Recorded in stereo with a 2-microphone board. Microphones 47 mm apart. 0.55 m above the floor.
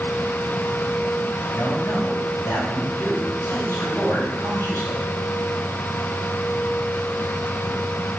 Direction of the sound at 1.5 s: 70° left (ahead or behind).